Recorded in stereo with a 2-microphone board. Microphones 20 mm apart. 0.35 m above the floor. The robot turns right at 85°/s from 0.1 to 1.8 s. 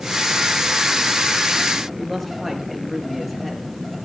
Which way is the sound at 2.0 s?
5° right (ahead or behind).